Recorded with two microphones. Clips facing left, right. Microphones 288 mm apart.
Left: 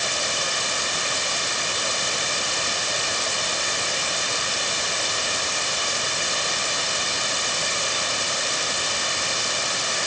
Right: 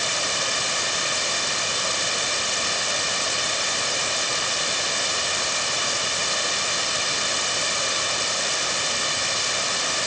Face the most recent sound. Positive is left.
No sound to turn to.